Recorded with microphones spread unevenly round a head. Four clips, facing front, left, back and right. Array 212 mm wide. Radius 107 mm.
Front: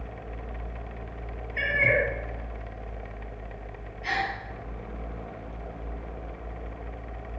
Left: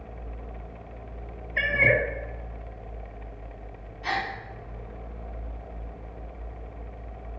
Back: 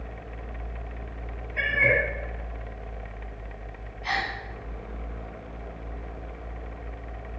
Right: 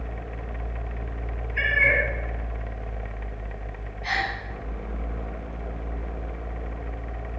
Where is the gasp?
55° left, 3 m.